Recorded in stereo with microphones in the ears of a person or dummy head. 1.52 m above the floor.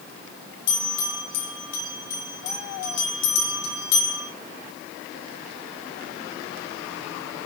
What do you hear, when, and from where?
0.7 s a bell: 60° left (ahead or behind), 2.5 m